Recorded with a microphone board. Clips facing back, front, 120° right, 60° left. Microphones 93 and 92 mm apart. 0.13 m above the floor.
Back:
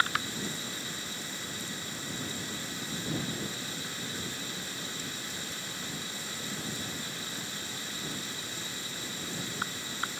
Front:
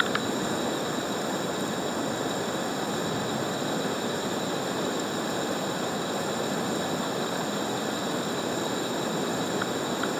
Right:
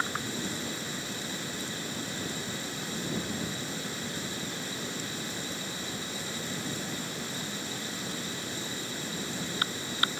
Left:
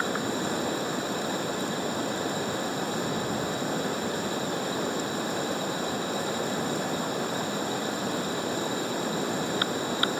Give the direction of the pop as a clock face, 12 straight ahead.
I don't hear a pop.